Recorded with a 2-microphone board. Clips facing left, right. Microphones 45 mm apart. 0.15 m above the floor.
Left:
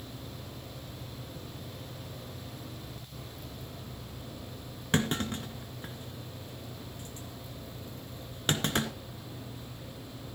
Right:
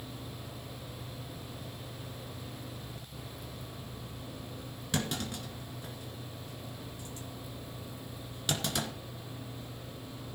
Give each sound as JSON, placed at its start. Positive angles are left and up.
{"t": 4.9, "sound": "a clunk", "side_deg": 40, "distance_m": 2.0}